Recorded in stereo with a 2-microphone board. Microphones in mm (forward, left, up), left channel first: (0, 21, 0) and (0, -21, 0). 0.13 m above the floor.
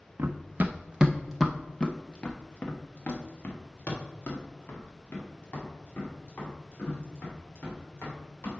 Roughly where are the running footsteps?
Right.